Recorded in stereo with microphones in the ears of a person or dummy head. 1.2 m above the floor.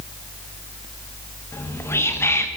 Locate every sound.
1.5 s whispering: 15° left (ahead or behind), 1.3 m